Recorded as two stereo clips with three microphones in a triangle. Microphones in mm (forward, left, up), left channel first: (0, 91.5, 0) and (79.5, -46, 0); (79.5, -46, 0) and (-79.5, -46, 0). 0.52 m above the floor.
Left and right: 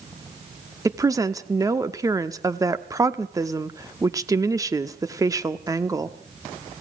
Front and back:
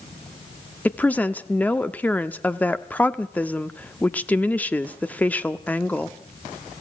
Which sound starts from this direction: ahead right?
A woman speaking, at 0.8 s.